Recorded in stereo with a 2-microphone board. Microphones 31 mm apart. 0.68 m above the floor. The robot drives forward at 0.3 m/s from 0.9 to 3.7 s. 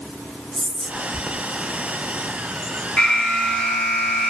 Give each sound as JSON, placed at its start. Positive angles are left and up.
{"t": 0.5, "sound": "whispering", "side_deg": -5, "distance_m": 0.6}
{"t": 3.0, "sound": "an alarm", "side_deg": 50, "distance_m": 2.5}